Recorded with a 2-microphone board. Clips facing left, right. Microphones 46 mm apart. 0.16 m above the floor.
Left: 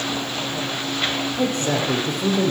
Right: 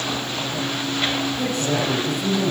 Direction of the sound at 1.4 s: 45° left (ahead or behind).